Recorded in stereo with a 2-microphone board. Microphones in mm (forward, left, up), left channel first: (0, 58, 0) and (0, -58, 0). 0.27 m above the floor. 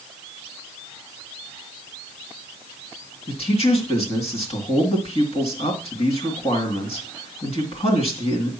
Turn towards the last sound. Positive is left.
turn(degrees=60)  # may be behind; listen again after turning